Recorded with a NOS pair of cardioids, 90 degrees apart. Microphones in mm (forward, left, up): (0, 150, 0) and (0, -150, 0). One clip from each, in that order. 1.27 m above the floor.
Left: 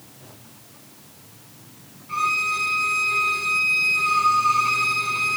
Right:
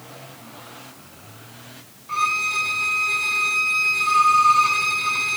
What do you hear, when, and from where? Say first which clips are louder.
2.1 s a violin: right 1 dB; 55° right, 3.5 m